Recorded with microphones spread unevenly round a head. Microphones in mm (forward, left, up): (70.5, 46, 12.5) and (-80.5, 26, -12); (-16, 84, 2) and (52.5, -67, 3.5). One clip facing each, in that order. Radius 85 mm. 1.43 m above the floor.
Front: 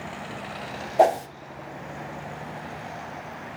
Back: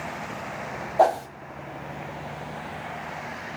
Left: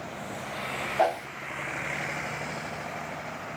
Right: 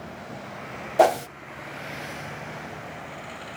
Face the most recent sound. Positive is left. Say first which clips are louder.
# front 1 dB, right 7 dB
turn(degrees=-65)